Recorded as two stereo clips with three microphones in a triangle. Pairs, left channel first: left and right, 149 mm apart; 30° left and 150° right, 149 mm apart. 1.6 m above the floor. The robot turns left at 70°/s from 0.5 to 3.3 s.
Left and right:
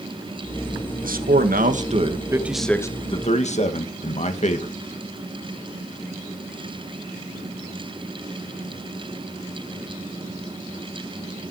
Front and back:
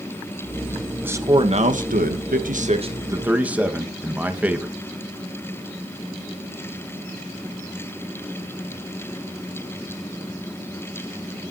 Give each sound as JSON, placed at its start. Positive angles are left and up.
{"t": 1.0, "sound": "a man speaking", "azimuth_deg": -70, "distance_m": 2.0}